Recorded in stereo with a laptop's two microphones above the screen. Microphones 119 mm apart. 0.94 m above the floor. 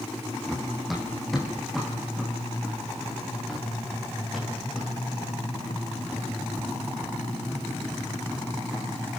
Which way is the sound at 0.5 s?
Centre (ahead or behind).